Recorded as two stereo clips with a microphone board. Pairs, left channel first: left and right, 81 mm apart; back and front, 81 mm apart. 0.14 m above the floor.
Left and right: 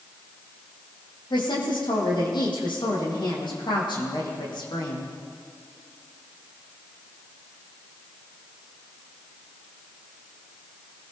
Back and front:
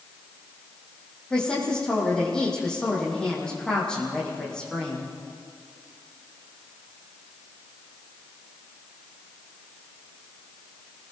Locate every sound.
1.3 s a woman speaking: 100° left, 7.5 m